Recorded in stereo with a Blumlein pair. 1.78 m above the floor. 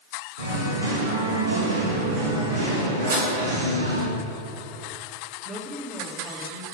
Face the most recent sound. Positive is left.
turn(degrees=-20)